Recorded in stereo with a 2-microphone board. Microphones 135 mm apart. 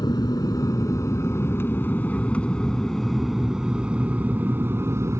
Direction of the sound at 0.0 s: 30° left (ahead or behind).